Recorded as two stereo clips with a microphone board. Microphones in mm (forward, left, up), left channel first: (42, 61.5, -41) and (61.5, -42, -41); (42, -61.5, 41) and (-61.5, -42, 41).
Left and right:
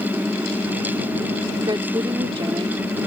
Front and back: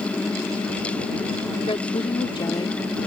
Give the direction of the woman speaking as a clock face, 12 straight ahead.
1 o'clock.